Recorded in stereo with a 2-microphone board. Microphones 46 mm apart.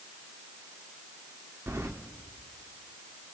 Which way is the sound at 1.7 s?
85° right.